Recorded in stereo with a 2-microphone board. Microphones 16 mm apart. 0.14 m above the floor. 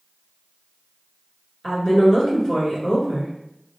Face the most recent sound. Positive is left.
turn(degrees=45)  # may be behind; listen again after turning